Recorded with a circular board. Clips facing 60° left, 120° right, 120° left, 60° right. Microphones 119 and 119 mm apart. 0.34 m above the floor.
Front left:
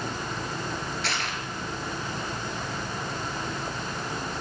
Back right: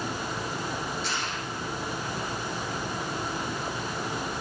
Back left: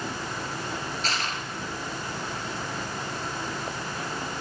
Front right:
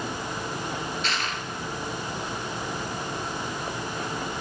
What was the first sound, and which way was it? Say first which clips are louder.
Crushing: front left 1 dB, even; 70° left.